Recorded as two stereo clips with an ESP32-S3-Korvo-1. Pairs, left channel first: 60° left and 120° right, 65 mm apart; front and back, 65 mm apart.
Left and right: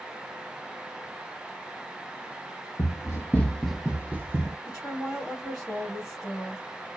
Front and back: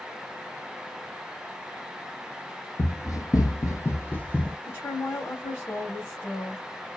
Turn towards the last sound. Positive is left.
turn(degrees=-35)